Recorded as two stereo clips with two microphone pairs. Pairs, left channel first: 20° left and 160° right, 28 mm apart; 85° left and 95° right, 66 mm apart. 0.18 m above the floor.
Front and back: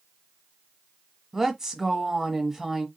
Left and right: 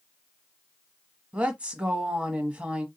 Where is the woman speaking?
120° right, 1.1 m.